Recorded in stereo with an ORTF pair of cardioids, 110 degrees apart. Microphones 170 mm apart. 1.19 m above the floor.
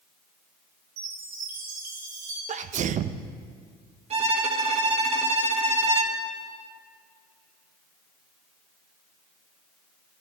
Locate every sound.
1.0 s a chime: 70° right, 4 m
2.5 s a sneeze: 45° right, 0.7 m
4.1 s a violin: 40° right, 1.6 m